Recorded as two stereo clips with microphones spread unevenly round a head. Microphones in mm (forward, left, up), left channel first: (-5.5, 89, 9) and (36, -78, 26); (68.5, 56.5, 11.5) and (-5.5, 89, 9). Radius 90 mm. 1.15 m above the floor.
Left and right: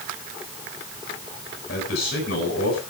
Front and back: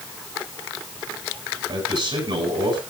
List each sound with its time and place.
1.7 s a man speaking: 145° left, 9.5 m